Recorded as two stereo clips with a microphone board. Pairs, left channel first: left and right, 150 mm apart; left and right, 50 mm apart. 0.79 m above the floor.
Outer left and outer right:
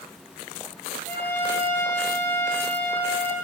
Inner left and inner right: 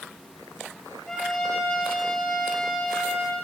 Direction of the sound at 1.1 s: 15° left (ahead or behind).